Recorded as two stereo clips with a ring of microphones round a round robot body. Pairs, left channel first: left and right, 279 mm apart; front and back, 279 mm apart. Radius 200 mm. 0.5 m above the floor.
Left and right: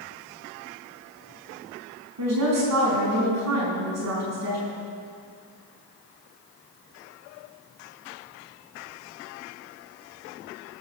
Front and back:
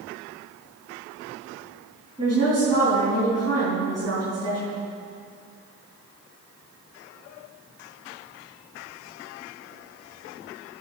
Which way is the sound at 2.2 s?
80° right.